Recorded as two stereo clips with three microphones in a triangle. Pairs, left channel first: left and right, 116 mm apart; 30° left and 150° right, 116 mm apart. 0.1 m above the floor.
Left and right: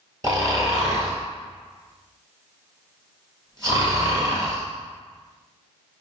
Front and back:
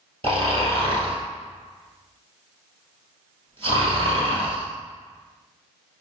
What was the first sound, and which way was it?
Snoring, 140° right.